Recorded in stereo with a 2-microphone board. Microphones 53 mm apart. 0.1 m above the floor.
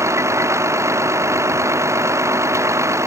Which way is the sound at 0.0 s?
70° right (ahead or behind).